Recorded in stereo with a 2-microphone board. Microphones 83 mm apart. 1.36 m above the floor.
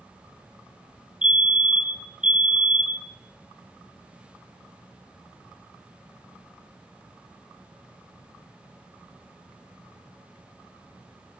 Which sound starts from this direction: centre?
A fire alarm, at 1.2 s.